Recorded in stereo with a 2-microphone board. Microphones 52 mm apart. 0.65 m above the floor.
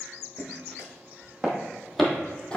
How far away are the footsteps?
About 1.6 m.